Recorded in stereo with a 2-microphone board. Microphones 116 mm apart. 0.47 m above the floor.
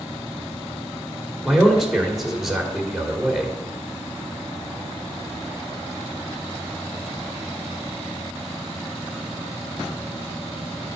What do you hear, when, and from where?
1.4 s a man speaking: centre (ahead or behind), 1.8 m